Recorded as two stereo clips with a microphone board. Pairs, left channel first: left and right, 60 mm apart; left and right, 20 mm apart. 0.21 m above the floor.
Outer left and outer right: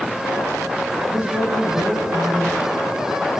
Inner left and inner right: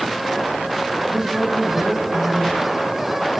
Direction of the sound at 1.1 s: 35° right (ahead or behind).